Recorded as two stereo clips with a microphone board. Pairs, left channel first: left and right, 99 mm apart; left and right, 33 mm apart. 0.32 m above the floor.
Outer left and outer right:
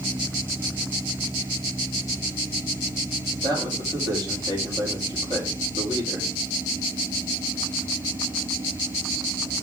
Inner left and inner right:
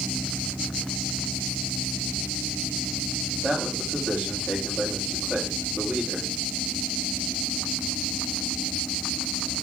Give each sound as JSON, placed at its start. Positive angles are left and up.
{"t": 3.4, "sound": "a man speaking", "side_deg": -45, "distance_m": 7.5}